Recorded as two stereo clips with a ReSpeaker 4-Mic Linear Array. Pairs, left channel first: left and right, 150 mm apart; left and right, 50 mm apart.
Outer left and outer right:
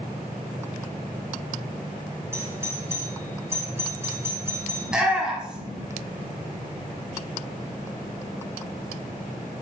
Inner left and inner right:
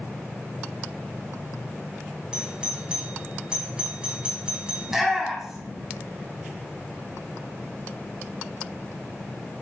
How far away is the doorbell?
About 1.5 m.